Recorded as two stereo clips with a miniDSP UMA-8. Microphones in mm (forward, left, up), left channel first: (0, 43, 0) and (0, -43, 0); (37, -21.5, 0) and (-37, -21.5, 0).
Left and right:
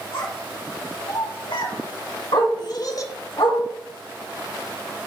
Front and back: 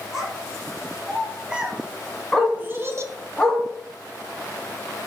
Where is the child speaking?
95° left, 2.5 m; by 3.1 s 140° left, 0.6 m.